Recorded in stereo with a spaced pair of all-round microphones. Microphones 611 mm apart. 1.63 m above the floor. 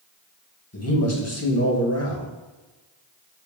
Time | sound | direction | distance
0.7 | a man speaking | 25° left (ahead or behind) | 2.0 m